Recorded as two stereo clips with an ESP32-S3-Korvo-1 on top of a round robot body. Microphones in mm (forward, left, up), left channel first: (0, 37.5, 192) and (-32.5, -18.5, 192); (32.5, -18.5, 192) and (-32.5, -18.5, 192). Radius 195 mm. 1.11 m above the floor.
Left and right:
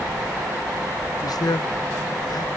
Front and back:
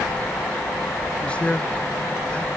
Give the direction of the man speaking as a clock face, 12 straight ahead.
10 o'clock.